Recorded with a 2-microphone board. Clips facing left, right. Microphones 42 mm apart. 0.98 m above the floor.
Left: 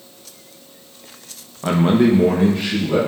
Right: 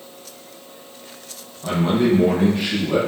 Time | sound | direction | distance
1.6 | a man speaking | 55° left (ahead or behind) | 0.6 m